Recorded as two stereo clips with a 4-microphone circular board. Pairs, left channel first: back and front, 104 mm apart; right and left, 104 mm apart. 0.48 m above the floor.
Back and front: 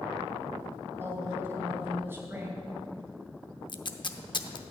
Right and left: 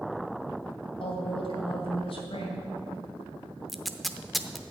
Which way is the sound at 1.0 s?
65° right.